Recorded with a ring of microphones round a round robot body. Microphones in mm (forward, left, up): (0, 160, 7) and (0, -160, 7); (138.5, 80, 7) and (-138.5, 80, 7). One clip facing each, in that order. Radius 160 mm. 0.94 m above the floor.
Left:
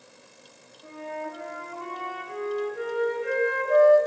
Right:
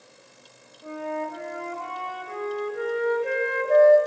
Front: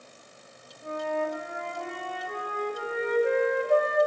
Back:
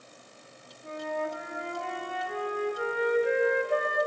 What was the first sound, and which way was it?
A flute, 55° right.